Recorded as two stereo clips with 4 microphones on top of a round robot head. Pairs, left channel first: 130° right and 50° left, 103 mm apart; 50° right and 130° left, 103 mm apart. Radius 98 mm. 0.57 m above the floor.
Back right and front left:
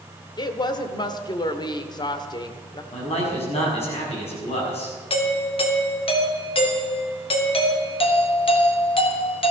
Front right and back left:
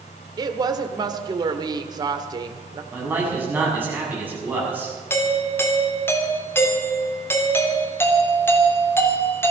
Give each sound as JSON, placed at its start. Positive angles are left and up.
{"t": 0.4, "sound": "a woman speaking", "azimuth_deg": 180, "distance_m": 1.6}
{"t": 2.9, "sound": "a man speaking", "azimuth_deg": -155, "distance_m": 6.5}
{"t": 5.1, "sound": "a doorbell", "azimuth_deg": -115, "distance_m": 3.0}